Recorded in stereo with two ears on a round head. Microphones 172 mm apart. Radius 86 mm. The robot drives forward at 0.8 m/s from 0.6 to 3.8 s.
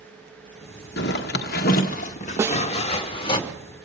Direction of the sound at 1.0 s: 60° left (ahead or behind).